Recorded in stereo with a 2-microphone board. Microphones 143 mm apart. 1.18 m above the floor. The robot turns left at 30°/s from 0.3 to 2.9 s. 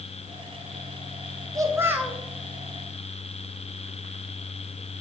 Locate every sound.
1.6 s a child speaking: 25° right (ahead or behind), 0.8 m; by 2.2 s 5° right (ahead or behind), 0.8 m